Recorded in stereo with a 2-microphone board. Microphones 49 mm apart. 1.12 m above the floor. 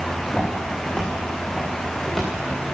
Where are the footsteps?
5° left (ahead or behind), 7.5 m; by 2.3 s centre (ahead or behind), 8 m.